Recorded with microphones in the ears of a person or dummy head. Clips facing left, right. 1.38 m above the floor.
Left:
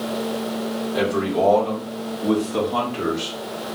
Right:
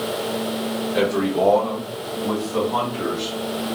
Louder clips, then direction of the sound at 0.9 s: Right 1 dB; 25° right (ahead or behind).